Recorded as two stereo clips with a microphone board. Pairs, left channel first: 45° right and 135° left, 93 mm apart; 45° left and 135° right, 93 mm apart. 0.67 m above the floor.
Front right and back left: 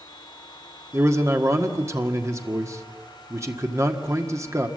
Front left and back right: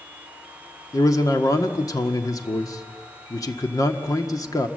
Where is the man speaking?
85° left, 1.6 m.